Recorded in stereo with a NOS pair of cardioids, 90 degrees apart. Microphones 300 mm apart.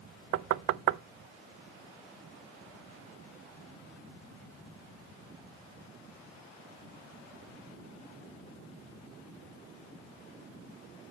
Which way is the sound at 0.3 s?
55° right.